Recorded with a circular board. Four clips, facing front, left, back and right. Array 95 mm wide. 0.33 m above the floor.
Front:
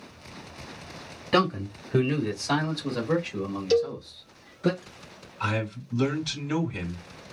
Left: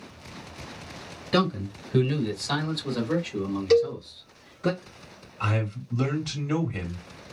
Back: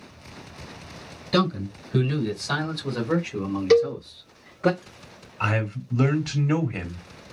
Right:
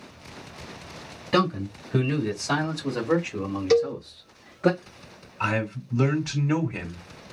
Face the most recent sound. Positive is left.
turn(degrees=-165)